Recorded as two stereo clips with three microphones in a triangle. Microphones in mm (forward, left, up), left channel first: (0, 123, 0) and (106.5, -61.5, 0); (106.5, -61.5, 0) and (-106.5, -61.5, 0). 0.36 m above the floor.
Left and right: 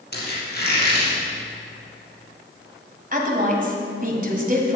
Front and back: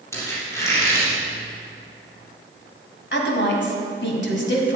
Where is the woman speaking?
15° right, 1.9 m.